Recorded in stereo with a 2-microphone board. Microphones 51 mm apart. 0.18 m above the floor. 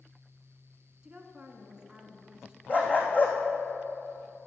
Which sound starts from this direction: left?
A dog barking, at 2.7 s.